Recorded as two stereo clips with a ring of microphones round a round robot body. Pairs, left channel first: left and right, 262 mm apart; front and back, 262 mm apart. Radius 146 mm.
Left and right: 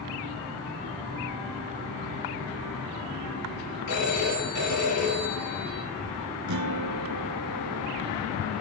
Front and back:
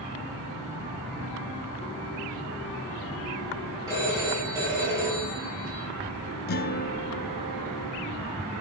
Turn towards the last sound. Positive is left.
turn(degrees=-55)